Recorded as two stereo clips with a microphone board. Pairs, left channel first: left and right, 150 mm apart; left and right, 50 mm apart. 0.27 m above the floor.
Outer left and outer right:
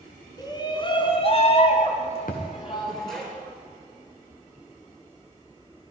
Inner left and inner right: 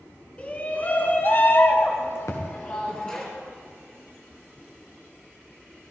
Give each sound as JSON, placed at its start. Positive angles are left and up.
{"t": 0.4, "sound": "a shout", "side_deg": 25, "distance_m": 2.5}
{"t": 2.3, "sound": "a thud", "side_deg": 70, "distance_m": 3.0}